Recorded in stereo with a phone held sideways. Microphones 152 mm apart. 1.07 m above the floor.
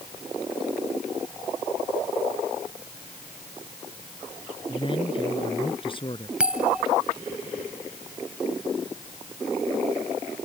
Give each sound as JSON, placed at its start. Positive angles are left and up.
{"t": 4.7, "sound": "a man speaking", "side_deg": 35}
{"t": 6.4, "sound": "a bell", "side_deg": -5}